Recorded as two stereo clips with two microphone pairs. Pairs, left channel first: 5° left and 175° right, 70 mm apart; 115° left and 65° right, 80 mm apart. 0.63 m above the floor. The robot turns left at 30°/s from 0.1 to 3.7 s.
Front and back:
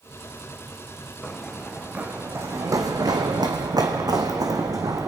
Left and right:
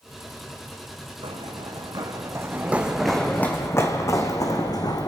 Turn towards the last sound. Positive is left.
turn(degrees=150)